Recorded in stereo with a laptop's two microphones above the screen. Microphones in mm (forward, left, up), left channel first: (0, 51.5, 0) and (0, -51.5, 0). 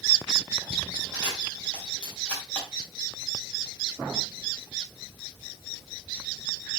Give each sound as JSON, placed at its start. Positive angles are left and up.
{"t": 1.1, "sound": "a camera shutter", "side_deg": 15, "distance_m": 4.0}